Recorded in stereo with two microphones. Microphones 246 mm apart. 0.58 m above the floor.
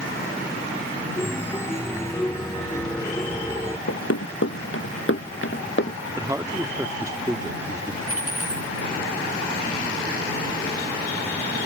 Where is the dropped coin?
60° left (ahead or behind).